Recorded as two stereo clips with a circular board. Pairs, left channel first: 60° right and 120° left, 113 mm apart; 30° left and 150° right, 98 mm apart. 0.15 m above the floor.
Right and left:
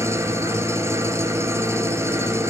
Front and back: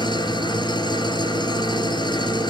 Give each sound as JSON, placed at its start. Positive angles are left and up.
{"t": 0.0, "sound": "an engine running", "azimuth_deg": 60, "distance_m": 1.4}